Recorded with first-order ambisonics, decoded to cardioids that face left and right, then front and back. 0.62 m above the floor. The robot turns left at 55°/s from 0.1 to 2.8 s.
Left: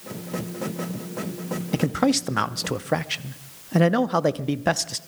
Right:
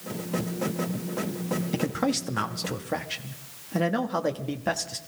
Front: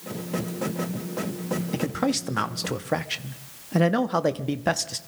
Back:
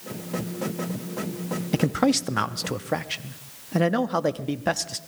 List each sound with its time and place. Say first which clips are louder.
1.7 s a man speaking: left 7 dB, back 5 dB; 140° left, 0.5 m; by 5.0 s 80° left, 0.5 m